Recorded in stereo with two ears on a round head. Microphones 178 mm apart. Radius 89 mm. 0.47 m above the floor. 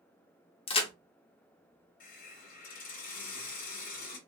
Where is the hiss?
45° left (ahead or behind), 0.9 m.